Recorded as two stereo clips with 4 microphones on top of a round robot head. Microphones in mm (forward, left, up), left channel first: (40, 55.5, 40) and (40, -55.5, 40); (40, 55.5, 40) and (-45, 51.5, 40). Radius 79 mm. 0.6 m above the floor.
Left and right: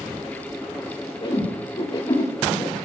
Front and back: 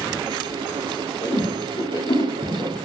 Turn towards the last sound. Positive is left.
turn(degrees=45)